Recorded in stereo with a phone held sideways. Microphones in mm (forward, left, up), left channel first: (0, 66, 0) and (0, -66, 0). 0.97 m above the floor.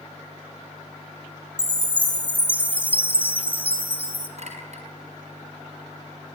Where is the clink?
60° right (ahead or behind), 6 m.